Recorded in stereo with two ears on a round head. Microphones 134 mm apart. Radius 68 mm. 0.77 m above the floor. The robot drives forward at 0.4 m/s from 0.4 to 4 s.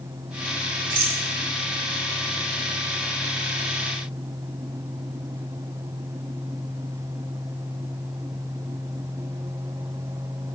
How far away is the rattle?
About 3.5 m.